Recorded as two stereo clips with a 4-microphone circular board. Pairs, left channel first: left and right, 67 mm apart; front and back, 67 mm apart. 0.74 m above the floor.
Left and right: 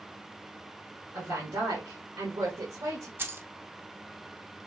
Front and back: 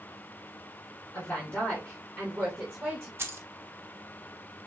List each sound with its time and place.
1.1 s a woman speaking: 60° right, 2.5 m; by 3.1 s 105° right, 2 m
3.2 s keys jangling: 140° right, 0.6 m